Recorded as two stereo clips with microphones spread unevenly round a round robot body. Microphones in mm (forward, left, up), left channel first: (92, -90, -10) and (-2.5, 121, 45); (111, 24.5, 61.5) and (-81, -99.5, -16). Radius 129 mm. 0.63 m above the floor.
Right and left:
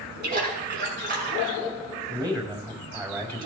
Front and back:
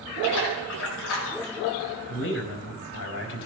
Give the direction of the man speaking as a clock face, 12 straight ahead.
11 o'clock.